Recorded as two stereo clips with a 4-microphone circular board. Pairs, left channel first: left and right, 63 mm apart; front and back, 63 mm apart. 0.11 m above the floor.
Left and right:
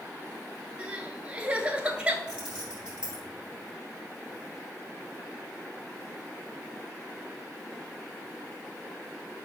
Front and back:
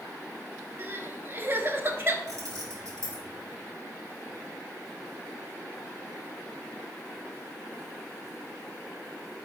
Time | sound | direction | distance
0.8 | crying | 150° right | 0.5 m
2.3 | keys jangling | 165° right | 1.7 m